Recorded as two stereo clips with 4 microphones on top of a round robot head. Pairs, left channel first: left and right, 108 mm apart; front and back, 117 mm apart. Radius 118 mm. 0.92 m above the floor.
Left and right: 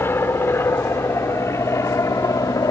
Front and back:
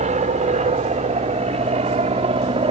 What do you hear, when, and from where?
0.0 s an aircraft: 160° left; by 2.7 s 145° left